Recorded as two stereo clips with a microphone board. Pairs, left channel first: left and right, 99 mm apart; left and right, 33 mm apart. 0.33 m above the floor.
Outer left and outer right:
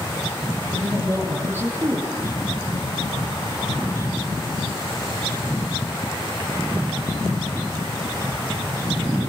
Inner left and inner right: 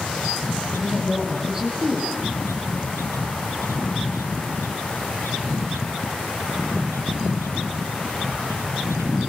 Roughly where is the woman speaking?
Right.